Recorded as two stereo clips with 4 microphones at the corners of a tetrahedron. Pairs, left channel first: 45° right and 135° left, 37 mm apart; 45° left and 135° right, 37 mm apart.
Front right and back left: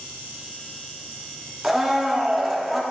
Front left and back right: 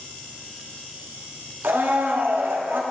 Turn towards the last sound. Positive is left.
turn(degrees=-140)